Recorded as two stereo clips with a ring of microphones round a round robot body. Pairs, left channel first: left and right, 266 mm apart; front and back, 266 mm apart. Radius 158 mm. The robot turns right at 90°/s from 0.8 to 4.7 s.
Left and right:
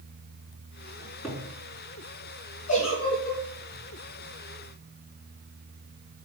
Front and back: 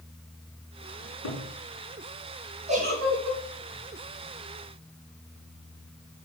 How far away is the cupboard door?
About 4 m.